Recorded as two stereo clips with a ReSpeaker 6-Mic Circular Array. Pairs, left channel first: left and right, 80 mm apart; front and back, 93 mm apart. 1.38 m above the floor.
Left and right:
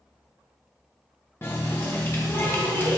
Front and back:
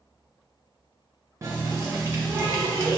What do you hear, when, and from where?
1.4 s a running tap: 135° left, 0.8 m